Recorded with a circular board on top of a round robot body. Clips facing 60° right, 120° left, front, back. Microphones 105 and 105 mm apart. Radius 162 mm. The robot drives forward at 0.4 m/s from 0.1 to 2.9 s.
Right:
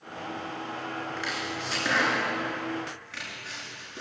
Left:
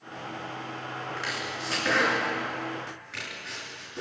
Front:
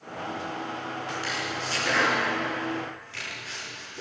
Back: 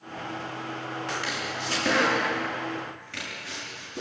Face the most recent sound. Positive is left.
turn(degrees=-145)